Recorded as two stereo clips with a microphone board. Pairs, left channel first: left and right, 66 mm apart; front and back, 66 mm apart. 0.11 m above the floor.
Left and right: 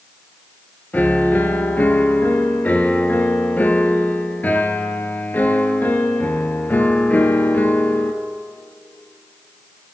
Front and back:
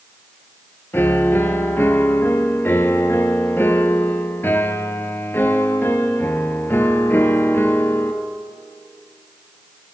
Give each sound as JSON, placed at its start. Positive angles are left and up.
{"t": 0.9, "sound": "a piano", "azimuth_deg": 35, "distance_m": 0.7}